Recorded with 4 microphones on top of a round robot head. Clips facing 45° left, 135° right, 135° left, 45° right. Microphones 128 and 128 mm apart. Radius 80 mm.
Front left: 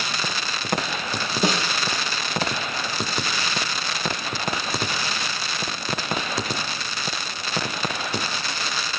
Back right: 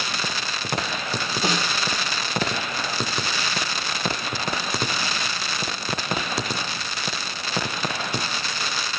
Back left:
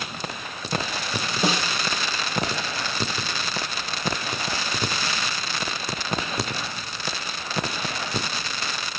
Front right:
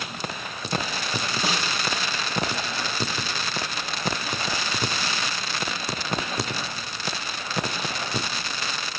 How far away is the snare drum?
About 6 m.